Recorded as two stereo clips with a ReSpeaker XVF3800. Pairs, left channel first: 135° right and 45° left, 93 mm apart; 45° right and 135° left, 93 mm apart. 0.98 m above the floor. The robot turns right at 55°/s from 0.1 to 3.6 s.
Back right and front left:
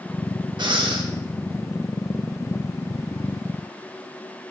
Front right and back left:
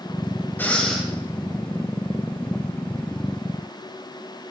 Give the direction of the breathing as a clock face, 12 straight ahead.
11 o'clock.